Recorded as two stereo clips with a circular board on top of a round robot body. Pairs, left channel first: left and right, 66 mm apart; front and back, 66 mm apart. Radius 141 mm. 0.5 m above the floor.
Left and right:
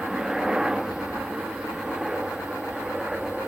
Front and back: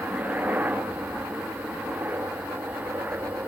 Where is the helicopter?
160° right; by 3.5 s 165° right.